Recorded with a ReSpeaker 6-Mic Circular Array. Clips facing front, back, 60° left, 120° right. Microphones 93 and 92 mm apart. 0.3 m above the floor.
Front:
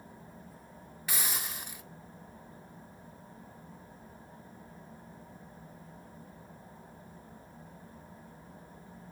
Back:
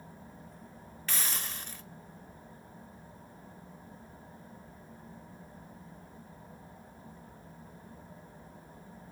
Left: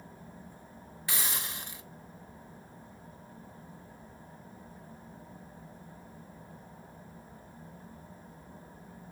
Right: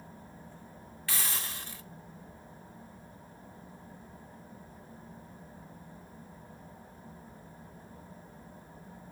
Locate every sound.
1.1 s a hiss: 60° left, 1.0 m